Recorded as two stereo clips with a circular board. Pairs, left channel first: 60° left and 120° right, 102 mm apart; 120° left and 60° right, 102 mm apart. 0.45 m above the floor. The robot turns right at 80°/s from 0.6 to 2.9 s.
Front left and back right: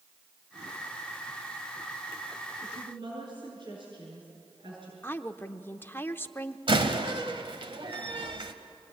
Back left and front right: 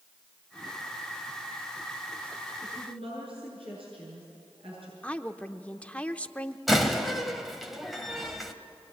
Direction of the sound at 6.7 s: 150° right.